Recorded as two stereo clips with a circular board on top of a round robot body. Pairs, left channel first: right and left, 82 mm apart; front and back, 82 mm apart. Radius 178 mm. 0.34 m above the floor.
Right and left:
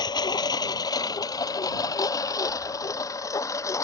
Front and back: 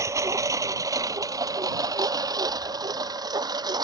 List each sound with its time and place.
0.0 s a lawn mower: 125° right; by 3.8 s 145° right